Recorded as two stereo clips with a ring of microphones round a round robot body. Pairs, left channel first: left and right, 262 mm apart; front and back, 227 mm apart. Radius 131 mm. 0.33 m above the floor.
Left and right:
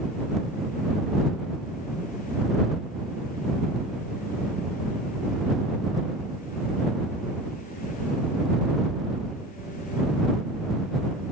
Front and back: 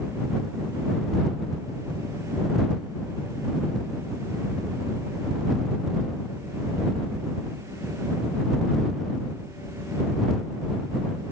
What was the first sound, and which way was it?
Only background noise.